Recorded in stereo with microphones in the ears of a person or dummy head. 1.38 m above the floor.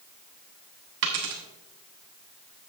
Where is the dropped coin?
55° right (ahead or behind), 1.2 m.